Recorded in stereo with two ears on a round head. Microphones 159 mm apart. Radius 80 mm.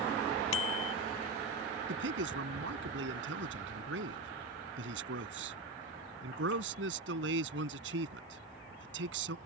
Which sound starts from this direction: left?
A bicycle bell, at 0.5 s.